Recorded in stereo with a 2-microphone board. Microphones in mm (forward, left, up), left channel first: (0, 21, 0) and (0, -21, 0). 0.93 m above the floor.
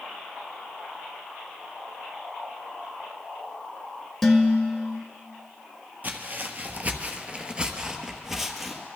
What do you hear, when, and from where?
4.2 s dishes clattering: 10° left (ahead or behind), 1.4 m
6.0 s footsteps: 45° right (ahead or behind), 1.3 m; by 8.8 s centre (ahead or behind), 1.5 m